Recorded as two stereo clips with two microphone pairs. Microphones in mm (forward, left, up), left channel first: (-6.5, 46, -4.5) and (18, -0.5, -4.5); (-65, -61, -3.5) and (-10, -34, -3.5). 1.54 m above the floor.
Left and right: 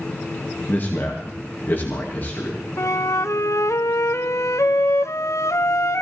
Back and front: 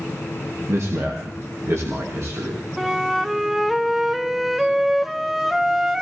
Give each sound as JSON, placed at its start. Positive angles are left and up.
{"t": 0.7, "sound": "a man speaking", "azimuth_deg": 65, "distance_m": 2.5}
{"t": 2.8, "sound": "a flute", "azimuth_deg": 120, "distance_m": 0.6}